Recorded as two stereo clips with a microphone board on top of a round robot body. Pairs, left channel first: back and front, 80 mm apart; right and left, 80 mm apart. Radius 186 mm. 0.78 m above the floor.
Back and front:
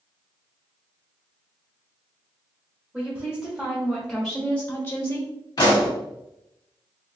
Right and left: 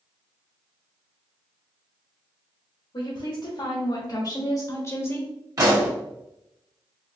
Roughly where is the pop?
Behind left.